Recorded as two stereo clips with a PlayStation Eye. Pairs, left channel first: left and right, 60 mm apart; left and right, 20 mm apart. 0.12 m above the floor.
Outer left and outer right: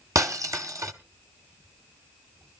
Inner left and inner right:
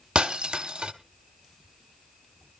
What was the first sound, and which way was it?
Breaking glass, 60° right (ahead or behind).